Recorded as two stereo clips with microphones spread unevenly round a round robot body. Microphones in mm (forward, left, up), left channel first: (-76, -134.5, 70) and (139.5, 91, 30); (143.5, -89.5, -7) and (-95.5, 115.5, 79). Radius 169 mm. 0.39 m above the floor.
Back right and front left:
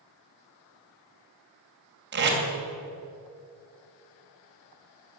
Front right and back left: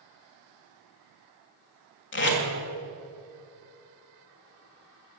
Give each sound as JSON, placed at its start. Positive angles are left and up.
{"t": 2.1, "sound": "tape being pulled", "azimuth_deg": 0, "distance_m": 2.5}